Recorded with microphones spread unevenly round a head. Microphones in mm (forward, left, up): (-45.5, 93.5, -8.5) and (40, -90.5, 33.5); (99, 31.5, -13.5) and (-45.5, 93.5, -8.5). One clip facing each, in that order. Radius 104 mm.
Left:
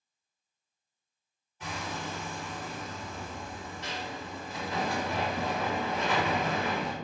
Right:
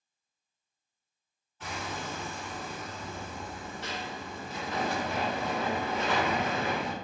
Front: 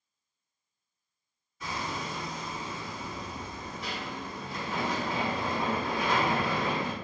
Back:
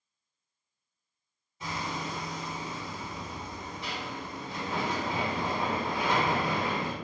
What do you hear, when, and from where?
1.6 s hammering: 160° right, 1.6 m